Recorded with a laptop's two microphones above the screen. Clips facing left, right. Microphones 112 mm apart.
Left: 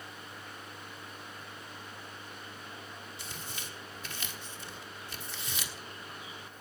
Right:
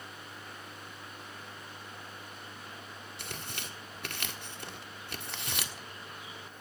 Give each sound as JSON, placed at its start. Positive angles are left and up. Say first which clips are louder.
{"t": 3.2, "sound": "tearing paper", "louder": "right 4 dB", "side_deg": -65, "distance_m": 1.3}